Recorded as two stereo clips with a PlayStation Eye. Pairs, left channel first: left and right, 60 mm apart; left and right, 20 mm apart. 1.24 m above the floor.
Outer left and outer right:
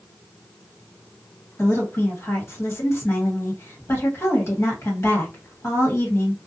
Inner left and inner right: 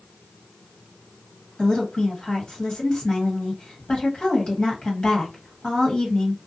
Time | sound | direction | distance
1.6 | a woman speaking | 45° left (ahead or behind) | 1.2 m